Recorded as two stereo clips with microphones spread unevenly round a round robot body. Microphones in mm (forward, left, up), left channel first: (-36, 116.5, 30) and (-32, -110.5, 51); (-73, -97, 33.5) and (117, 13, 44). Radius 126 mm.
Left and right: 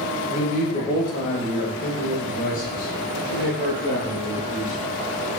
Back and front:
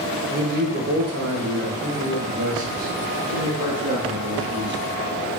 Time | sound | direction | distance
0.3 | a man speaking | 65° left | 1.1 m